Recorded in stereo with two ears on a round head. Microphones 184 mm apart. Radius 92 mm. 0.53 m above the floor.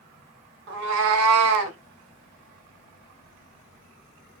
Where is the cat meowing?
55° right (ahead or behind), 0.7 m; by 1.8 s 65° right (ahead or behind), 0.8 m.